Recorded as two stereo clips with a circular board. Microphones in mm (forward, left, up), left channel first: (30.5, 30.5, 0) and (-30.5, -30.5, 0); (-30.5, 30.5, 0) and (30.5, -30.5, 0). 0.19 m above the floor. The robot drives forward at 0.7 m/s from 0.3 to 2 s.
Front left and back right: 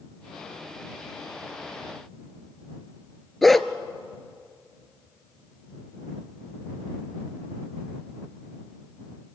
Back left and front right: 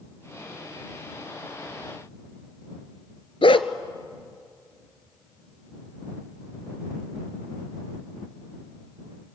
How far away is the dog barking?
About 0.8 m.